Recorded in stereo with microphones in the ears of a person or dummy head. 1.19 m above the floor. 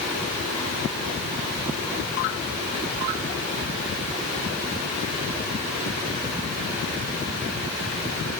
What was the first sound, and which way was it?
Only background noise.